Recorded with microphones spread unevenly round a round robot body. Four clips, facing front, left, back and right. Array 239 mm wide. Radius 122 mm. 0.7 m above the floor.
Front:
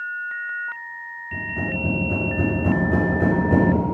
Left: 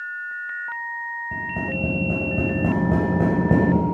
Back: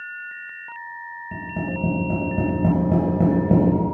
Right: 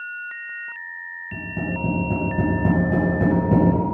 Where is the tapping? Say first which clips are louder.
Right 1 dB, even; 145° left, 4 m.